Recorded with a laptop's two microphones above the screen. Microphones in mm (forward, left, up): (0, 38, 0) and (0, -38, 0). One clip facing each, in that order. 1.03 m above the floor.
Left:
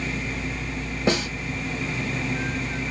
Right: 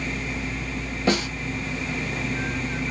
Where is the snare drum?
30° left (ahead or behind), 4 m.